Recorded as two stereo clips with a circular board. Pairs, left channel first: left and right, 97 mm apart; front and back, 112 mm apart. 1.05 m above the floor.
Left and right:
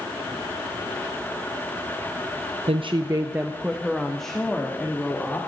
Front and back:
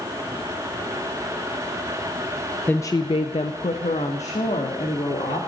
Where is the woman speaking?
75° right, 0.6 m; by 5.4 s 15° left, 2.5 m.